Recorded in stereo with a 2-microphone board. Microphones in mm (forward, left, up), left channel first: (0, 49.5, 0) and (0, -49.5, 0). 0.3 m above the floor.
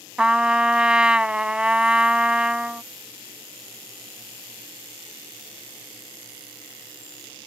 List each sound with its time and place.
0.2 s a trumpet: 10° right (ahead or behind)